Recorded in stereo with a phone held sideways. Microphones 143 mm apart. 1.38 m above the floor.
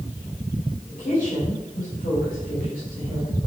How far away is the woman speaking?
About 4 m.